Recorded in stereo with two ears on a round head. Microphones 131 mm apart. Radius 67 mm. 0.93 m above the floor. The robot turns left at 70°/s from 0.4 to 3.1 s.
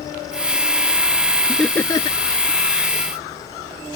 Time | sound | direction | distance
1.5 | laughter | 5° right (ahead or behind) | ?